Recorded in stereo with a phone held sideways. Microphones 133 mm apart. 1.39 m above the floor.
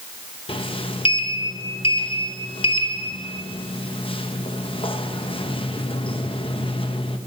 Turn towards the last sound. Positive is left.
turn(degrees=40)  # may be behind; listen again after turning